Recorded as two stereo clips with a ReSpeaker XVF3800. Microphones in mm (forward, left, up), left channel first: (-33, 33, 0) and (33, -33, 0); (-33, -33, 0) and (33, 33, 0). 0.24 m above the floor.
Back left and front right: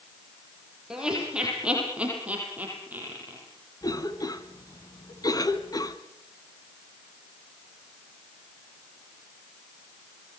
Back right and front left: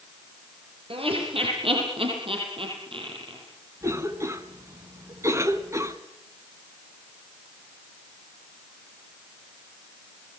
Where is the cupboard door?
No cupboard door in this recording.